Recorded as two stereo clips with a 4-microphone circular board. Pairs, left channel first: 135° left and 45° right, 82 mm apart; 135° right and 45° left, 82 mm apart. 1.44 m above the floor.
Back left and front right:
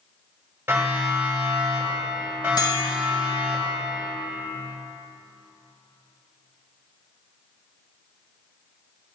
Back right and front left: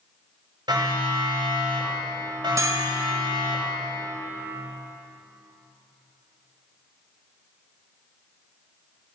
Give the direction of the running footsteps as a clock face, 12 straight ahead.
No running footsteps in this recording.